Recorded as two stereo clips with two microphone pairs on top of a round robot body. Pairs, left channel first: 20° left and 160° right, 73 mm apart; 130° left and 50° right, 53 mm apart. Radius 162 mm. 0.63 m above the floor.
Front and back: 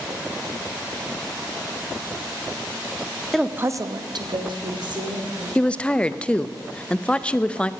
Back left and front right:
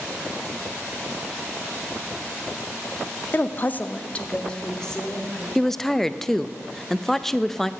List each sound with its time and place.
3.3 s a woman speaking: 90° left, 0.8 m; by 5.5 s 150° right, 3 m
5.5 s a woman speaking: 45° left, 0.6 m